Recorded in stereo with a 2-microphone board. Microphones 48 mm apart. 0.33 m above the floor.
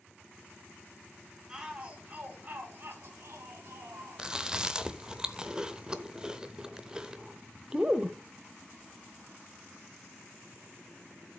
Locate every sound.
1.5 s a shout: 15° right (ahead or behind), 3.5 m; by 4.3 s 70° right (ahead or behind), 4 m
4.2 s chewing: 15° right (ahead or behind), 0.8 m